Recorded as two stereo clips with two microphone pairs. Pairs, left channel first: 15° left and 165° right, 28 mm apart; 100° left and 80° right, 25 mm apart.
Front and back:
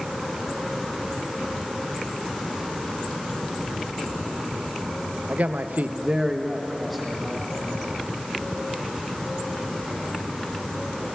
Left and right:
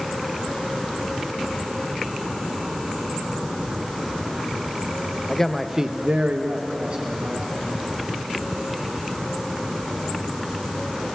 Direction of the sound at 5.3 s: 165° left.